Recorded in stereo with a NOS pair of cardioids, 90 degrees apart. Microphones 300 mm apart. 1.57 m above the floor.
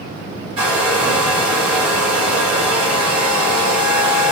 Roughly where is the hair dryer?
Right.